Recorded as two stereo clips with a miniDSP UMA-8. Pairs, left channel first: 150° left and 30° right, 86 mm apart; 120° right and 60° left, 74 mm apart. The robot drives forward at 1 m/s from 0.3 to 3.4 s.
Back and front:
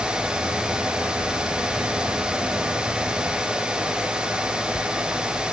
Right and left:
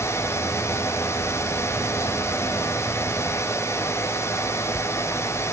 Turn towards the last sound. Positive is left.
No sound to turn to.